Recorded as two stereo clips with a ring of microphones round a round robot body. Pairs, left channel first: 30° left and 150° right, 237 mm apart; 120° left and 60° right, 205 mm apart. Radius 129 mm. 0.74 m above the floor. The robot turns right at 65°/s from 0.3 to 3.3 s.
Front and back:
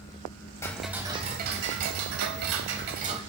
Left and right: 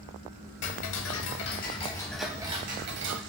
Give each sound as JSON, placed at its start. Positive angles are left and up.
{"t": 0.6, "sound": "ticking", "azimuth_deg": 105, "distance_m": 0.8}